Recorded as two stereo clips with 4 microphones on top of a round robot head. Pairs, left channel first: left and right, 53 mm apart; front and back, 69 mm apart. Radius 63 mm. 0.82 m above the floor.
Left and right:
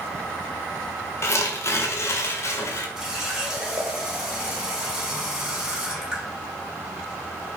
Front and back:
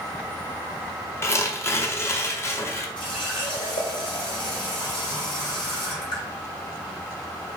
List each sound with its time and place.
1.2 s tearing paper: 55° left, 0.7 m
3.0 s a running tap: 10° right, 2.5 m